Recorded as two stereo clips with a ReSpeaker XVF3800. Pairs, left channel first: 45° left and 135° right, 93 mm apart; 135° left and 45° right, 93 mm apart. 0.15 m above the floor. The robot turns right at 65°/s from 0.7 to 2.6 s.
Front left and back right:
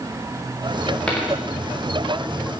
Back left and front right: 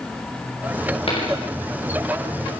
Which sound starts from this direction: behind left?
A dropped coin, at 1.1 s.